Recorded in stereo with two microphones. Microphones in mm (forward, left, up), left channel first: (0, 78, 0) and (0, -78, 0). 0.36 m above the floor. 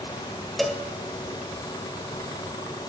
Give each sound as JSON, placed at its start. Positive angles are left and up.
{"t": 0.6, "sound": "a cowbell", "side_deg": 0, "distance_m": 1.0}